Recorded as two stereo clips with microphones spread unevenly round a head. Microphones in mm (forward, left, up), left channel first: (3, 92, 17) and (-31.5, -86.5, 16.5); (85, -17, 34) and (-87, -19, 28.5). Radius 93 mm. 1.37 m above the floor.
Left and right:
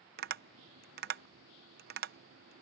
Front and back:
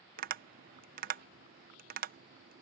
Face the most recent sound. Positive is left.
turn(degrees=-140)